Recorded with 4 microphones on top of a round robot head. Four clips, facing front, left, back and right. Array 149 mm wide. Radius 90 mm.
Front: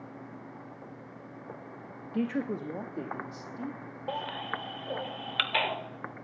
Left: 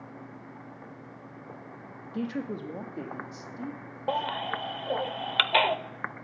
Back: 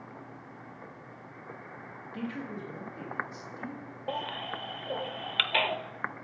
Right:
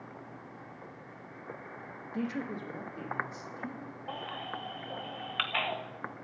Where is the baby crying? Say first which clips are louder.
Left 11 dB, even; 90° left, 0.8 m.